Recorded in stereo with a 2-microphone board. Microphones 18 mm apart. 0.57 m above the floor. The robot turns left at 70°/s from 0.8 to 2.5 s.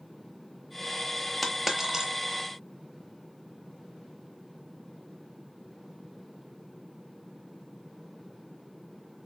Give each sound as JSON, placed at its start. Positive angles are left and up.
{"t": 1.4, "sound": "a dropped coin", "side_deg": 5, "distance_m": 0.8}